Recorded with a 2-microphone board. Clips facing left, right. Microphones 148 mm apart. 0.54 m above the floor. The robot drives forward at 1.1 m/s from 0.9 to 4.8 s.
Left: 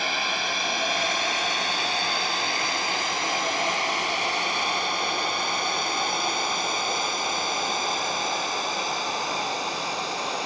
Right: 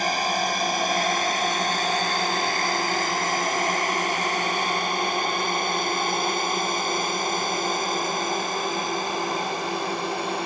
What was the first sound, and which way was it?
A drone, 40° right (ahead or behind).